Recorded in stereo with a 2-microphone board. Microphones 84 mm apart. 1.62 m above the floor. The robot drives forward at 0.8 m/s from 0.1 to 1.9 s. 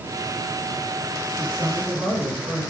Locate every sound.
1.3 s a man speaking: 50° right (ahead or behind), 8 m